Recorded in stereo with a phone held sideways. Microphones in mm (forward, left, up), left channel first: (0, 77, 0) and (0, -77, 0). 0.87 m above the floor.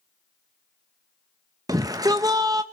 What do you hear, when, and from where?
1.7 s a shout: 25° right (ahead or behind), 0.6 m